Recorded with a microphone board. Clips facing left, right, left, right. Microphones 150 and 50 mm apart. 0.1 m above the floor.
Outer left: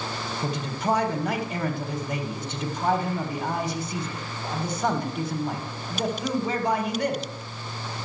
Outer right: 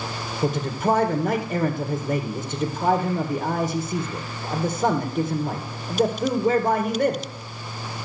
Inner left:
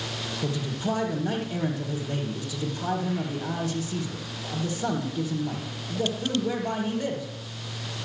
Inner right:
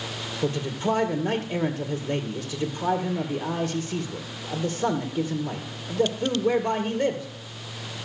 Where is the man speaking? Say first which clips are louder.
Outer right 6 dB, inner right 4 dB; 45° right (ahead or behind), 1.8 m.